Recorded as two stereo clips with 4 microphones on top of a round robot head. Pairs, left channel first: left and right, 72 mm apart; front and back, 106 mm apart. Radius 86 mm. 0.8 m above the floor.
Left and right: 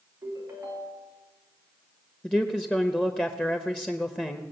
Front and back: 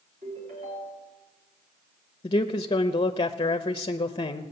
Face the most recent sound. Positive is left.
turn(degrees=15)